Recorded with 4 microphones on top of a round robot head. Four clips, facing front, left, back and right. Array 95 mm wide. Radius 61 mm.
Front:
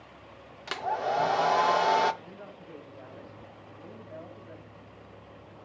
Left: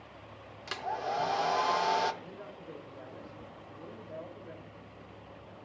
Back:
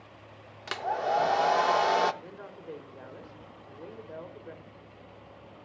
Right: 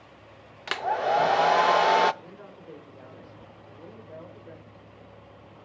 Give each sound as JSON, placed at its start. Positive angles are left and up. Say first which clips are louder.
{"t": 0.7, "sound": "a hair dryer", "louder": "right 9 dB, back 1 dB", "azimuth_deg": -90, "distance_m": 0.5}
{"t": 2.2, "sound": "a woman speaking", "louder": "even, back 2 dB", "azimuth_deg": -170, "distance_m": 4.5}